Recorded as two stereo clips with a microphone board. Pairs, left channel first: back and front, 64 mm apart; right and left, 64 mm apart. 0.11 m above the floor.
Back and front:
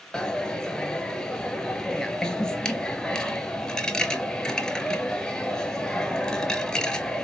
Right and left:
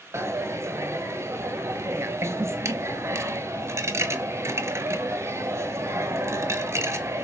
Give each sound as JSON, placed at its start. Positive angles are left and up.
{"t": 0.1, "sound": "a dropped coin", "azimuth_deg": 105, "distance_m": 0.5}